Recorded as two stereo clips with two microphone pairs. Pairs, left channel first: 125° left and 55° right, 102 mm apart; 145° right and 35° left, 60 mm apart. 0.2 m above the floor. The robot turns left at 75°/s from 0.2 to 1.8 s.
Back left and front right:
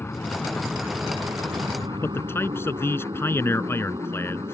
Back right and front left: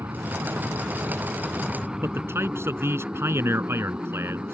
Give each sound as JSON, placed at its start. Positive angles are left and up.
{"t": 0.0, "sound": "an aircraft", "azimuth_deg": 60}
{"t": 2.0, "sound": "a man speaking", "azimuth_deg": 65}